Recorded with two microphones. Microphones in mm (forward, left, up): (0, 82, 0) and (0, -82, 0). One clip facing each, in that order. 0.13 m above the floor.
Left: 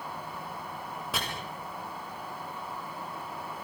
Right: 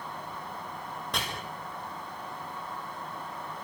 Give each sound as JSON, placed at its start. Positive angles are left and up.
{"t": 1.1, "sound": "chopping", "side_deg": 5, "distance_m": 8.5}